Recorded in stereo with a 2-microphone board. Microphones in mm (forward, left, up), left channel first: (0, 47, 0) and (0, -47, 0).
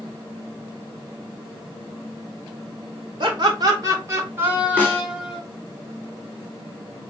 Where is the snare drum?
15° left (ahead or behind), 1.1 m.